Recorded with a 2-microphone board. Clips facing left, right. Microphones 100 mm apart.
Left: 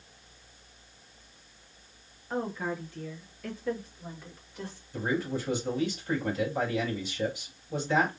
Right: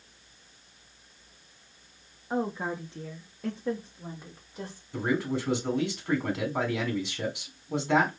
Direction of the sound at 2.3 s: 15° right (ahead or behind).